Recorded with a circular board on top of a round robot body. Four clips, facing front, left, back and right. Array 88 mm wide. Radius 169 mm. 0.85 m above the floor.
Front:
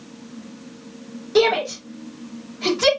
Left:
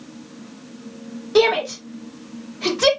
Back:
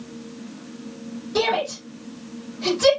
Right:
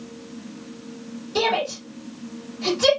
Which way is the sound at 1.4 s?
70° left.